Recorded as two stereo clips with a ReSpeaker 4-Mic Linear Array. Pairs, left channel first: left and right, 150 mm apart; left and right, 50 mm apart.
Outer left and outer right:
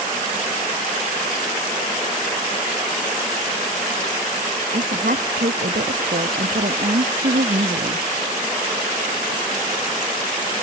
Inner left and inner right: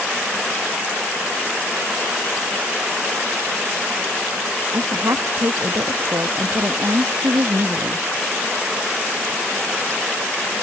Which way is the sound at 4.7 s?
70° right (ahead or behind).